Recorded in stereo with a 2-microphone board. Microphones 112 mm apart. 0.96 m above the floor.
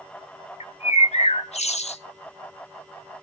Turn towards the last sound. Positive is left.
turn(degrees=75)  # may be behind; listen again after turning